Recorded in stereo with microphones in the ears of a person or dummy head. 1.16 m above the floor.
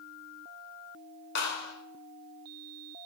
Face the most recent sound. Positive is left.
turn(degrees=65)  # may be behind; listen again after turning